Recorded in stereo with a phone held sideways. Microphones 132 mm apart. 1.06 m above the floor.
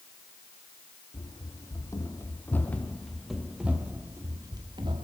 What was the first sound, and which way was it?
Running footsteps, 30° left (ahead or behind).